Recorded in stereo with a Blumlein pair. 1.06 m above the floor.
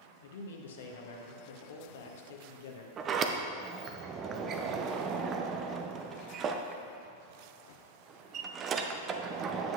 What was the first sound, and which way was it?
A man speaking, 60° left.